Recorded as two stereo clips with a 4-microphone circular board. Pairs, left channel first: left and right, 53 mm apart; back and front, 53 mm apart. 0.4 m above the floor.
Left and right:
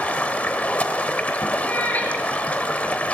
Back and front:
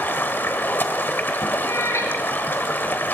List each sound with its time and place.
0.0 s running water: 145° left, 1.2 m
1.6 s a cat meowing: 150° left, 3 m